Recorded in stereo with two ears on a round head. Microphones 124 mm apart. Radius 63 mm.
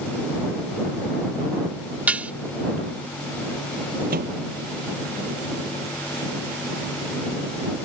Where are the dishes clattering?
10° right (ahead or behind).